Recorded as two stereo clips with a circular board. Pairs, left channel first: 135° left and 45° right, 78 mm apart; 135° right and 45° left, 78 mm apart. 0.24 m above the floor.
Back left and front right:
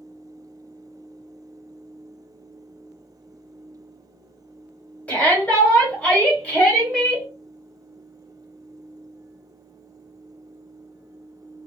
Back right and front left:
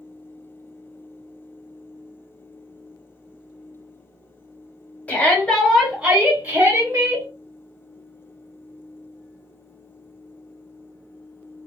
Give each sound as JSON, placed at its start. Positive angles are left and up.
{"t": 5.1, "sound": "a shout", "azimuth_deg": -175, "distance_m": 1.3}